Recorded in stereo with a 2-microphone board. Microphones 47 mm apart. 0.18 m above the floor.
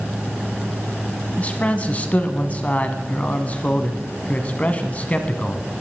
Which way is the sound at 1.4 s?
30° left (ahead or behind).